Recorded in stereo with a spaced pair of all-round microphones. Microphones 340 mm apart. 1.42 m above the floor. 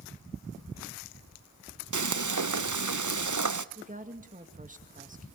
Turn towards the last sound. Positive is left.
turn(degrees=-25)  # may be behind; listen again after turning